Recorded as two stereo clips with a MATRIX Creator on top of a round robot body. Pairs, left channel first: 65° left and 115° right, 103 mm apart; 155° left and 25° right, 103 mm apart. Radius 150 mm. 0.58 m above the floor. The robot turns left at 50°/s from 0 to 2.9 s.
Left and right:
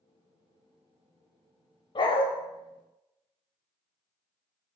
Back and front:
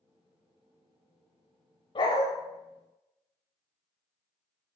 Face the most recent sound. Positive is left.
turn(degrees=65)